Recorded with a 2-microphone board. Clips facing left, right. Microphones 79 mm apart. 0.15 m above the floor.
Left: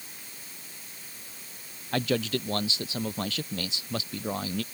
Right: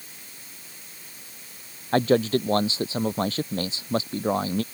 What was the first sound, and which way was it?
A man speaking, 35° right (ahead or behind).